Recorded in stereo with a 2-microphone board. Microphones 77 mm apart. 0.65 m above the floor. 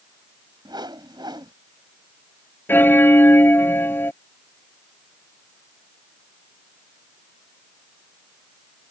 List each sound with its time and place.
0.7 s a whoosh: 75° right (ahead or behind)
2.7 s a bell: 30° left (ahead or behind)